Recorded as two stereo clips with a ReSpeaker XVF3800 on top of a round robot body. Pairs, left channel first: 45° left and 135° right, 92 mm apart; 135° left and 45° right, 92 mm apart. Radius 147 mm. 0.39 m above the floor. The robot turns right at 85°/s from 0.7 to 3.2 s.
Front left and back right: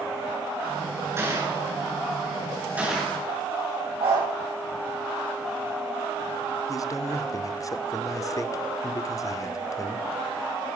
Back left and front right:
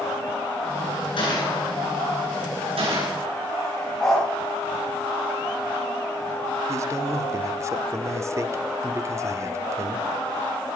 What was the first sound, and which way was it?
A gunshot, 165° left.